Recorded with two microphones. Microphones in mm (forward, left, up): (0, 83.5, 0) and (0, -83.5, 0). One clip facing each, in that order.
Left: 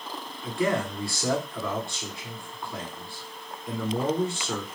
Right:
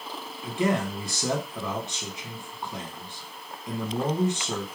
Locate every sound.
0.4 s a man speaking: 20° right (ahead or behind), 1.3 m